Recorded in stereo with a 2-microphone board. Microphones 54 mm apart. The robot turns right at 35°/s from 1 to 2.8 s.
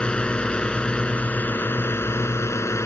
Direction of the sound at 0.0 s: 25° left.